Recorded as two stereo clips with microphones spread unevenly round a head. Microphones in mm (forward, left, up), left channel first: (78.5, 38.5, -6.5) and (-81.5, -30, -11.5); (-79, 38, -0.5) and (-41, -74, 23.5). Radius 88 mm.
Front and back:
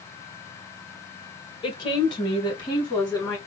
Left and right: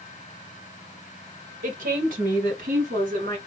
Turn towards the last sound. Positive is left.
turn(degrees=-45)